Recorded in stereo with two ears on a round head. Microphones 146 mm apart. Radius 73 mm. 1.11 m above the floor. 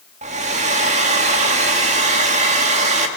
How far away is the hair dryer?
About 2 m.